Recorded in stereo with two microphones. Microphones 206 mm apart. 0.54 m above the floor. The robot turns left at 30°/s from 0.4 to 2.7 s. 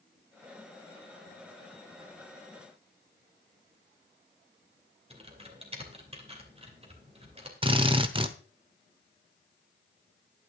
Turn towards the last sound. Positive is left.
turn(degrees=-25)  # may be behind; listen again after turning